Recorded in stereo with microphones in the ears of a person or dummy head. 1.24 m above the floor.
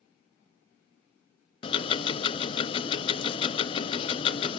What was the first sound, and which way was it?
Ticking, 30° left (ahead or behind).